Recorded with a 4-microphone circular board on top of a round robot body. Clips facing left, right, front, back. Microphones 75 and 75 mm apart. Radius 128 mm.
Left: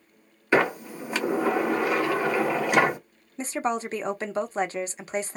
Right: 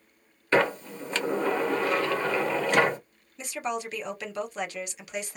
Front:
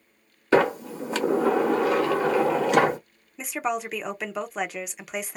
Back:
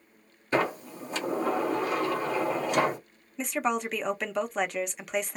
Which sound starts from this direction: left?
A woman speaking, at 3.4 s.